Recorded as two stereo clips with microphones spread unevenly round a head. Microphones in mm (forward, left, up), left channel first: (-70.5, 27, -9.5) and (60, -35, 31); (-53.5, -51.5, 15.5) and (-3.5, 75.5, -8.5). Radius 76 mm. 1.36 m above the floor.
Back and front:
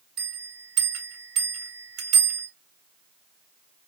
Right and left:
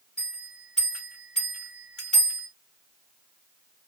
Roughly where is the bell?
Ahead right.